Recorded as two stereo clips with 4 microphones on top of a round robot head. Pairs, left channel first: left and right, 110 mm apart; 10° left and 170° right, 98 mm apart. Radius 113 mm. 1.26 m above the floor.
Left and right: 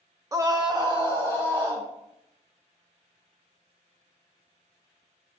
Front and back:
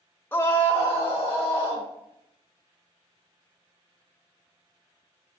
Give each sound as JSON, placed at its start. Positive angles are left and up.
{"t": 0.3, "sound": "a scream", "azimuth_deg": -45, "distance_m": 0.6}